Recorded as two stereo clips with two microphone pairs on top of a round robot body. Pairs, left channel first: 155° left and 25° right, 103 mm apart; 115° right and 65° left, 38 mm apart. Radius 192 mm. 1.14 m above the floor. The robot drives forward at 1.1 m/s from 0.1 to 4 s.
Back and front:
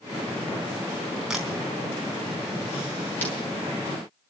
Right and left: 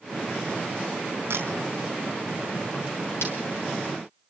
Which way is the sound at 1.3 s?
60° left.